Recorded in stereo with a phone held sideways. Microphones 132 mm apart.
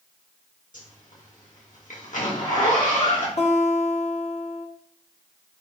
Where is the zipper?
80° left, 1.4 m.